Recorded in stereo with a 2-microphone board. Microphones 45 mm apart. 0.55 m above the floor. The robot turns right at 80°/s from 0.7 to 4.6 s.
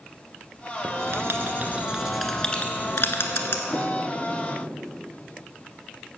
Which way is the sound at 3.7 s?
60° left (ahead or behind).